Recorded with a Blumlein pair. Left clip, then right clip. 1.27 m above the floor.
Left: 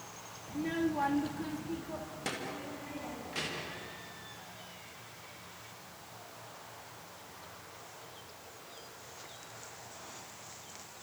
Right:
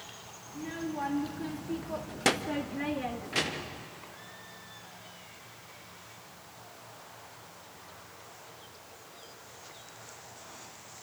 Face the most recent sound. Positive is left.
turn(degrees=-75)